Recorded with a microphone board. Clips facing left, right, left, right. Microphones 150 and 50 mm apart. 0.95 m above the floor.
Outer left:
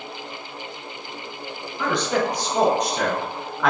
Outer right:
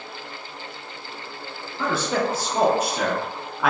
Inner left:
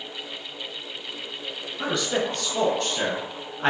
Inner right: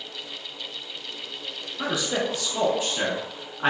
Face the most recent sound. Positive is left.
turn(degrees=-5)  # may be behind; listen again after turning